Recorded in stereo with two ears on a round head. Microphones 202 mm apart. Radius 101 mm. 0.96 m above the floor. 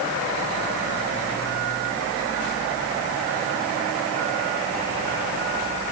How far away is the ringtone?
No ringtone in this recording.